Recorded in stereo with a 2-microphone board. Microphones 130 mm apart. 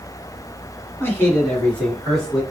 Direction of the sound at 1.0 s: 15° left (ahead or behind).